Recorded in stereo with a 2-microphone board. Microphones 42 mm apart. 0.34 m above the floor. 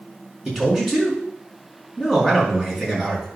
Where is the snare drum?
I don't hear a snare drum.